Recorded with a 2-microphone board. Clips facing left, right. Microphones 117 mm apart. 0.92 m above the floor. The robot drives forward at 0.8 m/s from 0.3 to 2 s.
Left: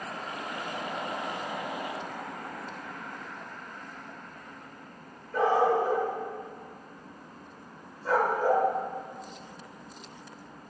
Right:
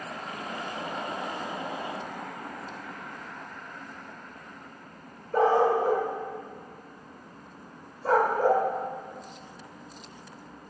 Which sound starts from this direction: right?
A dog barking, at 5.3 s.